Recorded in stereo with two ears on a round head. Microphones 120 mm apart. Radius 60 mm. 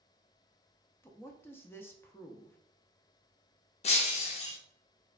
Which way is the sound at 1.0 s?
15° left (ahead or behind).